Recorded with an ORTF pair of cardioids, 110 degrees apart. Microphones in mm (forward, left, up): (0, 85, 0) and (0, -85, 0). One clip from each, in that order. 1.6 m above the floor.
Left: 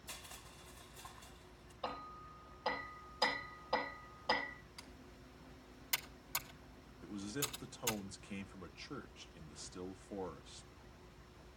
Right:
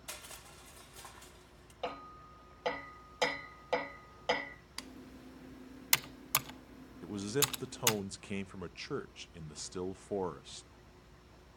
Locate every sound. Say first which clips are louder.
0.1 s crushing: right 4 dB; 65° right, 1.7 m
1.8 s hammering: right 3 dB; 70° right, 5 m
4.8 s typing on a keyboard: right 7 dB; 65° right, 0.6 m
7.0 s a man speaking: right 9 dB; 40° right, 0.6 m